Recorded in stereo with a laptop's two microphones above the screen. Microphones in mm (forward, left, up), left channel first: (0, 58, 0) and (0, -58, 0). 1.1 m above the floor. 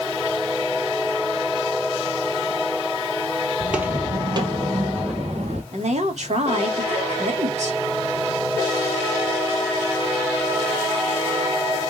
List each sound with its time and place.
3.6 s footsteps: 5° right (ahead or behind), 1.8 m; by 5.6 s 70° right (ahead or behind), 3 m
5.7 s a woman speaking: 75° right (ahead or behind), 2.5 m